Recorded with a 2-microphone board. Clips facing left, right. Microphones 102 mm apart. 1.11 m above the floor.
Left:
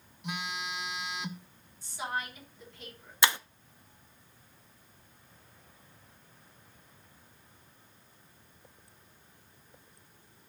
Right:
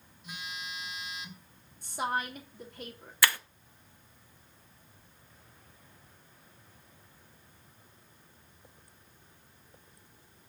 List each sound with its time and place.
0.2 s a phone buzzing: 70° left (ahead or behind), 1.1 m
1.8 s a woman speaking: 55° right (ahead or behind), 3 m
3.2 s breaking glass: 20° left (ahead or behind), 0.6 m